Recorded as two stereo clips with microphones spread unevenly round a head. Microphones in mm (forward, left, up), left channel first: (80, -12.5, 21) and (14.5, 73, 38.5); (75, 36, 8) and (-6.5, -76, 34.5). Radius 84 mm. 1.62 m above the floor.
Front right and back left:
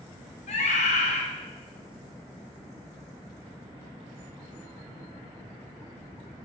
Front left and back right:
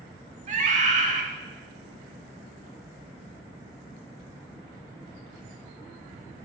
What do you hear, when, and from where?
0.5 s a scream: 95° right, 4 m